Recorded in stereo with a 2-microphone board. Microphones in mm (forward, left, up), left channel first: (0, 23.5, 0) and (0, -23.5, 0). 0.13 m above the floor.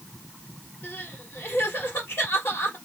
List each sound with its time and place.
0.8 s crying: 60° left (ahead or behind), 3 m